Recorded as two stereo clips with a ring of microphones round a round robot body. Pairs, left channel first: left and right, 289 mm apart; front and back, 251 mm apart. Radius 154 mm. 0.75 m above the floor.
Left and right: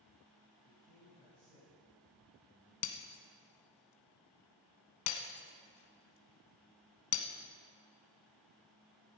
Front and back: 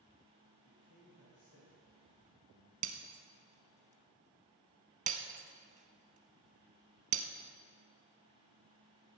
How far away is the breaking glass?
About 1.2 m.